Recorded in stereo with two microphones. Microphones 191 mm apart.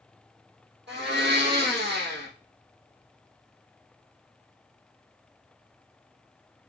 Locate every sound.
0.9 s a blender: 60° right (ahead or behind), 3.5 m